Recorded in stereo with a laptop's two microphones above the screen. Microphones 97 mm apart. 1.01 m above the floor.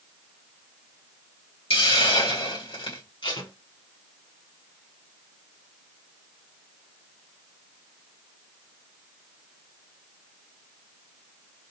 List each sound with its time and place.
1.7 s a hiss: 85° left, 2 m
3.2 s tape being pulled: 65° left (ahead or behind), 1.7 m